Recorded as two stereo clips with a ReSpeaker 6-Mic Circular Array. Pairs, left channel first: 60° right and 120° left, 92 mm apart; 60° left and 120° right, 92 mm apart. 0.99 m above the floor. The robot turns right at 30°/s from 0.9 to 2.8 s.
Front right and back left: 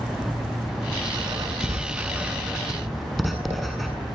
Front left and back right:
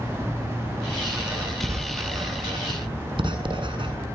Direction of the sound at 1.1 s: 160° left.